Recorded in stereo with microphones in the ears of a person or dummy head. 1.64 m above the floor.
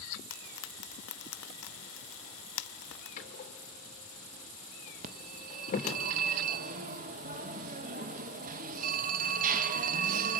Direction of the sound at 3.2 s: 45° left (ahead or behind).